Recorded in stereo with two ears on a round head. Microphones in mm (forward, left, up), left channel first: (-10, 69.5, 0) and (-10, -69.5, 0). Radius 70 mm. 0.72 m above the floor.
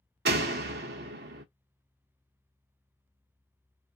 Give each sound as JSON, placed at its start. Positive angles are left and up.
{"t": 0.2, "sound": "a door slam", "side_deg": -70, "distance_m": 0.6}